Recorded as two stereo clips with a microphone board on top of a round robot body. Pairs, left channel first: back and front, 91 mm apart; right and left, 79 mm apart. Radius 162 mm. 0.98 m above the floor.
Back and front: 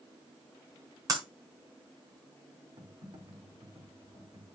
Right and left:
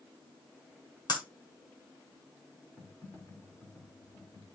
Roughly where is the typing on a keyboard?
Ahead right.